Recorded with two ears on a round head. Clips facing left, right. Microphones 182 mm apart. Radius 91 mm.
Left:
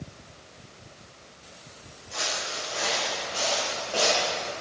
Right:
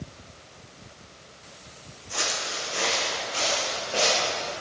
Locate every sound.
2.1 s footsteps: 60° right (ahead or behind), 3 m; by 4.5 s 15° right (ahead or behind), 5 m